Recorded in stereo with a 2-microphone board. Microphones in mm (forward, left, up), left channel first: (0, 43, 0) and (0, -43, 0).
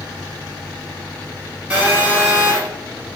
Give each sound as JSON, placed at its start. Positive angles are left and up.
{"t": 1.7, "sound": "a phone buzzing", "side_deg": -10, "distance_m": 1.3}